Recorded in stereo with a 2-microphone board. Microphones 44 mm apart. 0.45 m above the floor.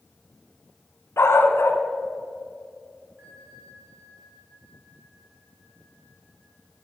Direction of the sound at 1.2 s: 85° left.